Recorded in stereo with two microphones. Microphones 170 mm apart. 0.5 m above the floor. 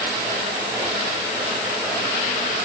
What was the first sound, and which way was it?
Only background noise.